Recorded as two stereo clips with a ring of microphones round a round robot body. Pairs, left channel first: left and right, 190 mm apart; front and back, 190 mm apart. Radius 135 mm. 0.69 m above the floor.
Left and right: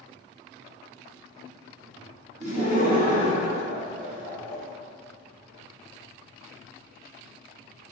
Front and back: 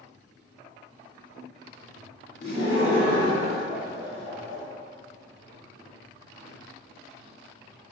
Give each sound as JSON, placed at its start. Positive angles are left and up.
{"t": 2.4, "sound": "laughter", "azimuth_deg": -45, "distance_m": 1.0}